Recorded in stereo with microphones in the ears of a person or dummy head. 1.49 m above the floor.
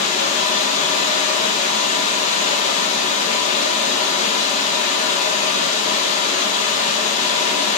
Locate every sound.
0.0 s running water: 50° left (ahead or behind), 1.7 m